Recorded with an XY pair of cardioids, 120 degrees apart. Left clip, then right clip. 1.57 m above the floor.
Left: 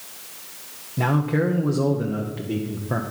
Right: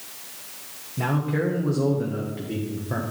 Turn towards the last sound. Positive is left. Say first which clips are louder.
# left 3 dB
turn(degrees=25)